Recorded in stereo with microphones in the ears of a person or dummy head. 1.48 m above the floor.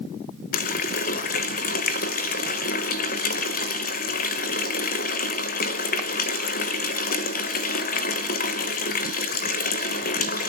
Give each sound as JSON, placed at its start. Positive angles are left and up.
{"t": 0.5, "sound": "a running tap", "side_deg": 45, "distance_m": 0.8}